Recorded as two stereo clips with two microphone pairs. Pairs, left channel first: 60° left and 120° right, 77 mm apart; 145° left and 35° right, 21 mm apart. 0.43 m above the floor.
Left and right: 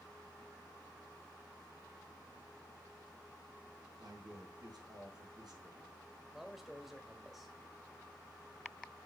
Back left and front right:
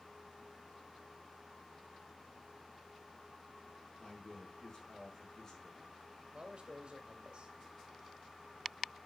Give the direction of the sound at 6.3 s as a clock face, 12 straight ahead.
1 o'clock.